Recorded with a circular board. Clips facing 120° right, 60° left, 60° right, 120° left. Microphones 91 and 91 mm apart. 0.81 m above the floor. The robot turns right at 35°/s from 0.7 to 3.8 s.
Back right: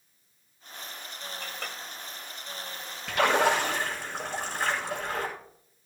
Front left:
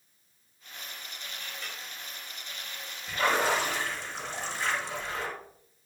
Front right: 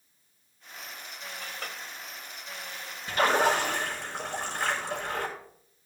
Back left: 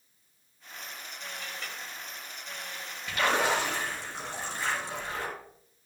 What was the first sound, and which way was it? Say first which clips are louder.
A clink: back right 3 dB, front right 3 dB; 105° right.